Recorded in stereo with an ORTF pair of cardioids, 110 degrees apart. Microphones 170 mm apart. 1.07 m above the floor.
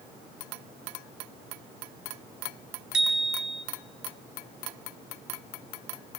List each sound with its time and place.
2.9 s a bicycle bell: 5° right, 4 m